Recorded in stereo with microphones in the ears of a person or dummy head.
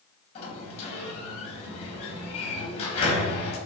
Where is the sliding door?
40° left (ahead or behind), 1.2 m.